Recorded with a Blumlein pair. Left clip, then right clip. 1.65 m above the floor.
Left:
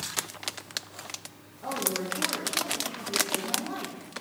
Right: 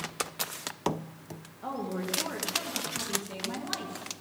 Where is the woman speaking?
10° right, 2 m.